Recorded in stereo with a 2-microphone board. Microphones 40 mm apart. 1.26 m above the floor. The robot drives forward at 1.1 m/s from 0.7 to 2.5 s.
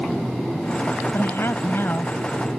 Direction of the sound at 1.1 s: 80° left.